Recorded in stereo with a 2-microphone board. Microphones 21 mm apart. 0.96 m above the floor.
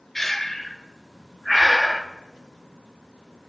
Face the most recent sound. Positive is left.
turn(degrees=15)  # may be behind; listen again after turning